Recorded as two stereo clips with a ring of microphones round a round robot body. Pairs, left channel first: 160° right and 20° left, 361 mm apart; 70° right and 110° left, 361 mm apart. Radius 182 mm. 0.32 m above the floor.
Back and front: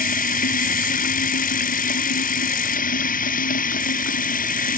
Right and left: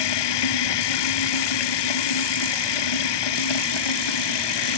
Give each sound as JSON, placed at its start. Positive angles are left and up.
{"t": 0.0, "sound": "running water", "azimuth_deg": -90}